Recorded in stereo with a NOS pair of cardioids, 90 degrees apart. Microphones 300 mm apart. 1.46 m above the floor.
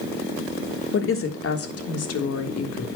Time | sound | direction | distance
0.9 | a woman speaking | 45° left | 3 m